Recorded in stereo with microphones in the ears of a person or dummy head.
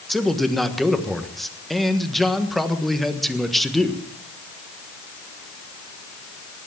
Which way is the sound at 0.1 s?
Centre (ahead or behind).